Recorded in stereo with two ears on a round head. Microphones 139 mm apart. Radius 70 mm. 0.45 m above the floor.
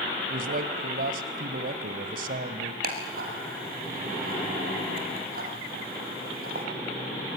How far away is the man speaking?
About 2 m.